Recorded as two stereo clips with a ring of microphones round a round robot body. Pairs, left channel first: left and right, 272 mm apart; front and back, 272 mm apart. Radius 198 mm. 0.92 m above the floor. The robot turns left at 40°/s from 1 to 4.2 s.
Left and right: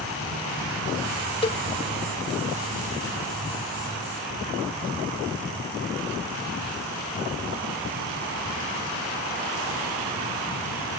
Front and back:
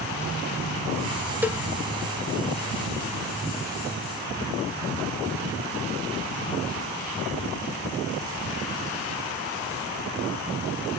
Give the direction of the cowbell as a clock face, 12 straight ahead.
8 o'clock.